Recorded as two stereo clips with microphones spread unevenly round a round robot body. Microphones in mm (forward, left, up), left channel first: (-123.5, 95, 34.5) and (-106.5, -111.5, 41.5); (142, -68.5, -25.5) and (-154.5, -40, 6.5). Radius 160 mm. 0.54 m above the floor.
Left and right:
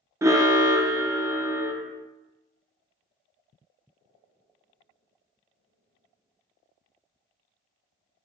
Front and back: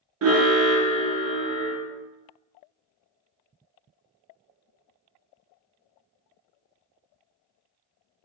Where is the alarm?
160° right, 0.6 m.